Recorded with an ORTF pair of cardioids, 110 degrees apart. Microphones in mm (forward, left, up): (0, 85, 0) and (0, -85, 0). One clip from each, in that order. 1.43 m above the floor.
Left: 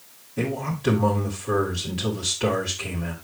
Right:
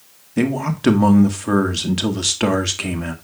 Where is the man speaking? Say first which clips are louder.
Right 6 dB; 70° right, 1.5 m.